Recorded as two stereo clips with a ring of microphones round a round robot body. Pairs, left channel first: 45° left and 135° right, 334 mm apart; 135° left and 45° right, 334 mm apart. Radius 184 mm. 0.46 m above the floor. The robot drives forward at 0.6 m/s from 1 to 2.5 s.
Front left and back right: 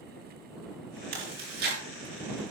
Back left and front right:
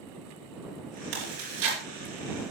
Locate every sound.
1.1 s chewing: 70° right, 8 m; by 1.8 s 75° right, 8 m